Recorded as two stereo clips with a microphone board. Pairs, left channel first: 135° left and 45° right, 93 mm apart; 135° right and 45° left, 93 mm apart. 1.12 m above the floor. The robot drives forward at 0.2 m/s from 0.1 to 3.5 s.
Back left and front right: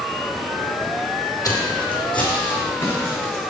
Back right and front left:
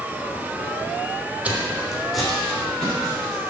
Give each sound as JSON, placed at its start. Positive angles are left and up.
{"t": 1.4, "sound": "footsteps", "azimuth_deg": 110, "distance_m": 1.4}